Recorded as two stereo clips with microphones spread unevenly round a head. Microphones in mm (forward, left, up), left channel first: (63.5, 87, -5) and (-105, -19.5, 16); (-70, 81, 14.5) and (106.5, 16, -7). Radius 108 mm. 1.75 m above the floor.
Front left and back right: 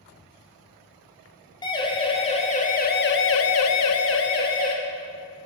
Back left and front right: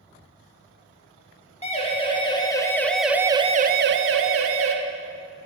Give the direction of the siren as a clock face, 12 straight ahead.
9 o'clock.